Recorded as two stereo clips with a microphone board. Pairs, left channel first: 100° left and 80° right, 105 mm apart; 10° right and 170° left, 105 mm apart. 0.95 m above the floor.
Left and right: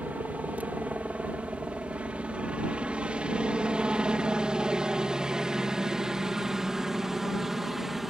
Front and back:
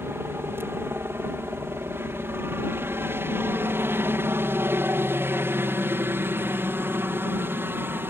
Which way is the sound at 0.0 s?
145° right.